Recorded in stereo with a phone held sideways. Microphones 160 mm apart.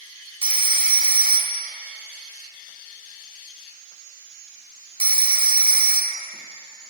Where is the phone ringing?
35° right (ahead or behind), 0.6 m.